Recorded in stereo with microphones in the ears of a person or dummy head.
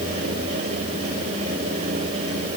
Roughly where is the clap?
I don't hear a clap.